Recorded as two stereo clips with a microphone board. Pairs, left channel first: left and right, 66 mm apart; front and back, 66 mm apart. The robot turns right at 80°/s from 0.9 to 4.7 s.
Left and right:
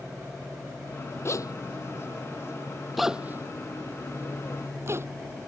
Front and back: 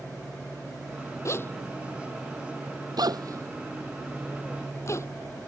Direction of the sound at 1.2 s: 40° left.